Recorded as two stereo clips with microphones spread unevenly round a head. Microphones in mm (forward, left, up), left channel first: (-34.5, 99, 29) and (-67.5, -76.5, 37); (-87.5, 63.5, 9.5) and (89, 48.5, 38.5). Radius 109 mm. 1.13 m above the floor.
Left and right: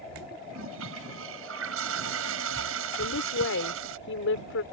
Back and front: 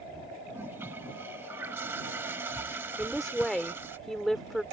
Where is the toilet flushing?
85° right.